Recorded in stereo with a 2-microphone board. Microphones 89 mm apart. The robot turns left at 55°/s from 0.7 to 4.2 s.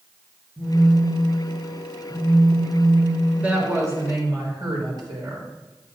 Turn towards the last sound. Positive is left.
turn(degrees=-55)